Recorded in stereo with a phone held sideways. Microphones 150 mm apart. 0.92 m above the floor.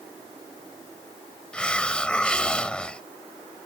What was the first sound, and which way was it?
A hiss, 5° left (ahead or behind).